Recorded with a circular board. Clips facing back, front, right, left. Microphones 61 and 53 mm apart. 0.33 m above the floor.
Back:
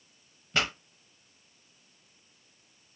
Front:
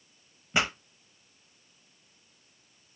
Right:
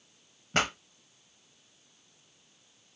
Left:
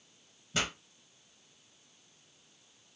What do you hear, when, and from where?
0.5 s a pop: 70° right, 0.7 m